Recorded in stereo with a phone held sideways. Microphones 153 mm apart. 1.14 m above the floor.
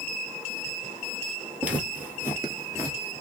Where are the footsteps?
10° right (ahead or behind), 1.8 m; by 3.0 s 20° right (ahead or behind), 1.4 m.